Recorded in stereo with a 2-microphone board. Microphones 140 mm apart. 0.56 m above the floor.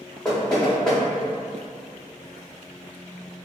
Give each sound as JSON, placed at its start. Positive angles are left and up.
{"t": 0.2, "sound": "knocking", "side_deg": 5, "distance_m": 0.7}